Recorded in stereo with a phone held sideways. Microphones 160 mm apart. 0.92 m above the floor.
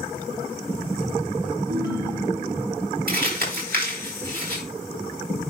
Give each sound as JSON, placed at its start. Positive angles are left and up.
{"t": 1.7, "sound": "a ringtone", "side_deg": -70, "distance_m": 1.2}
{"t": 3.1, "sound": "crumpling", "side_deg": -75, "distance_m": 4.0}